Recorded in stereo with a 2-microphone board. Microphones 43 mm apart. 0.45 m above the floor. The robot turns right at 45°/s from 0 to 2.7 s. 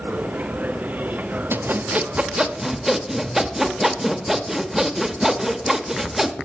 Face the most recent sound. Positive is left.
turn(degrees=-10)